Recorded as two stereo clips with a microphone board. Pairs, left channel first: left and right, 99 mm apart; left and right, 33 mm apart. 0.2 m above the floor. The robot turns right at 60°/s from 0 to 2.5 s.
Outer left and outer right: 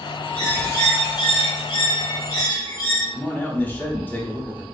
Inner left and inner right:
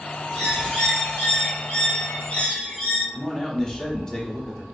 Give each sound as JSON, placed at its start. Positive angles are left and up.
{"t": 0.3, "sound": "a bird", "azimuth_deg": 15, "distance_m": 1.7}
{"t": 3.1, "sound": "a man speaking", "side_deg": 15, "distance_m": 1.0}